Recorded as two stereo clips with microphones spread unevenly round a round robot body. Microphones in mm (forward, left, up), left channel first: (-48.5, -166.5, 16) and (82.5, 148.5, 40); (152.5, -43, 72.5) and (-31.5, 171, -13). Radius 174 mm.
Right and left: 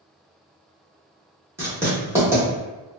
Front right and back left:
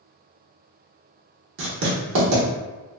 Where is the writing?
150° left, 0.8 m.